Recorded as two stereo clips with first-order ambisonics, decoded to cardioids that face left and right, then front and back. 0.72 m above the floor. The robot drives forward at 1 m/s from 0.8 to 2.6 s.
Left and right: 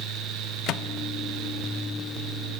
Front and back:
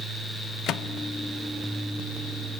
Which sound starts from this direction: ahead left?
A microwave, at 0.7 s.